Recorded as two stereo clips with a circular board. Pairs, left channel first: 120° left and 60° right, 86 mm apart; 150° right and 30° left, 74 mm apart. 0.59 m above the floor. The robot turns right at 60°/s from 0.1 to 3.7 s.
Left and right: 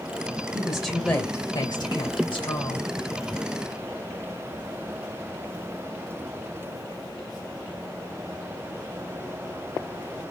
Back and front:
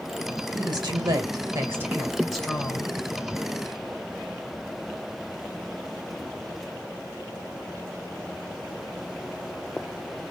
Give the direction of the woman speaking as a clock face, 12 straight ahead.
12 o'clock.